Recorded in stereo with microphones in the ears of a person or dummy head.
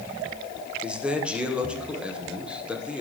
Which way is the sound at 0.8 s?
Centre (ahead or behind).